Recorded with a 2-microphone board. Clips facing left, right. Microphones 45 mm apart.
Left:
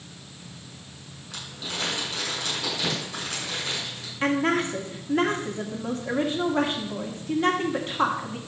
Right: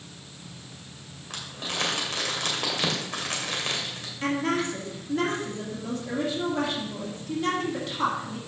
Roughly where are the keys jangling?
No keys jangling in this recording.